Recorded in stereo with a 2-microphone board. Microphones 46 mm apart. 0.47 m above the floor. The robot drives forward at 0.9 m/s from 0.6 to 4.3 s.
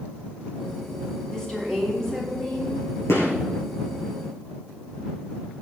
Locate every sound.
1.3 s a woman speaking: 10° left (ahead or behind), 4.5 m; by 2.8 s 15° left (ahead or behind), 3.5 m
3.1 s a gunshot: 75° left (ahead or behind), 5 m; by 3.3 s 70° left (ahead or behind), 5.5 m